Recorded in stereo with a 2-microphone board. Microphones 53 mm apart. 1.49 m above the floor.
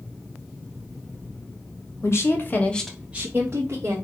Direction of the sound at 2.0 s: 55° left (ahead or behind).